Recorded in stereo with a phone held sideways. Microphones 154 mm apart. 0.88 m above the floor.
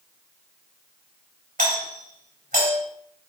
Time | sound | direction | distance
1.6 | a doorbell | 65° right (ahead or behind) | 4 m